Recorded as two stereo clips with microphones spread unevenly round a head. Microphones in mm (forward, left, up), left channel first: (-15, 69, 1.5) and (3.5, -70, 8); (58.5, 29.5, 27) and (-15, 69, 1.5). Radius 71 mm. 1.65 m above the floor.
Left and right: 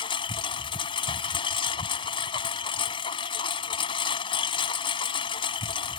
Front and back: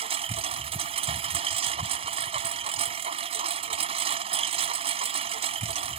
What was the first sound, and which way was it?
A lawn mower, 155° left.